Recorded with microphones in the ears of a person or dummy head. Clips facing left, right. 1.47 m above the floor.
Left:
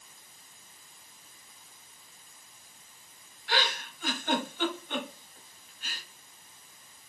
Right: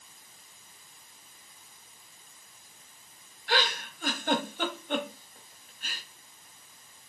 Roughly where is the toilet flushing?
I don't hear a toilet flushing.